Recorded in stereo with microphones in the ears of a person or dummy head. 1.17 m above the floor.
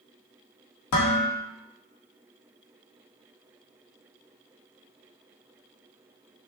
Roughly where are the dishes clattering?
Left.